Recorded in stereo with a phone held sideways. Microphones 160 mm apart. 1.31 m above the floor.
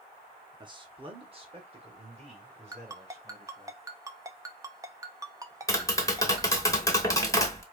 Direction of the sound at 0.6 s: 30° right (ahead or behind).